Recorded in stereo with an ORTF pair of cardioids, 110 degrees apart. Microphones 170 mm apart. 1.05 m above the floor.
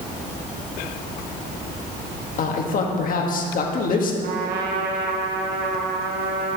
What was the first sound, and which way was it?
A man speaking, 50° left.